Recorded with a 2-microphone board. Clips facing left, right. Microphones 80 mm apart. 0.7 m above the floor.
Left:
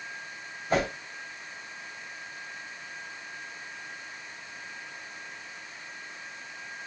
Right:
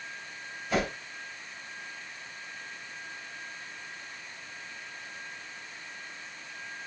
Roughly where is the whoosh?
Left.